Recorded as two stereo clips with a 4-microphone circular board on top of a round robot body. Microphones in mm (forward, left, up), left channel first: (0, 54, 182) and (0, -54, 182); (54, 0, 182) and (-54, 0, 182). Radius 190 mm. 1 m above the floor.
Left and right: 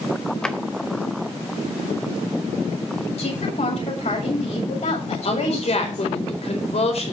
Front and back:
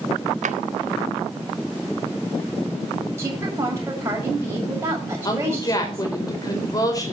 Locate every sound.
0.4 s a drawer: 170° left, 0.9 m
3.2 s a woman speaking: 115° left, 7 m
5.2 s a woman speaking: 60° left, 4.5 m